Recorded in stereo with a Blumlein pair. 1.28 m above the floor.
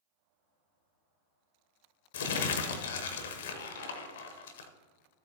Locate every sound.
2.1 s crumpling: 60° left, 0.9 m